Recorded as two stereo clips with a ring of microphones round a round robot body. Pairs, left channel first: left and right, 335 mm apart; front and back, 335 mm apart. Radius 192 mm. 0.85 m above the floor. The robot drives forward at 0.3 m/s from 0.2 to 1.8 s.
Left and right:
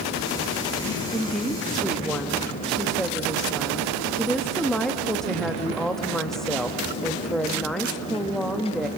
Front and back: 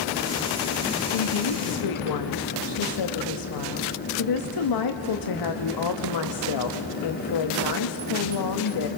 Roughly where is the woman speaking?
Ahead.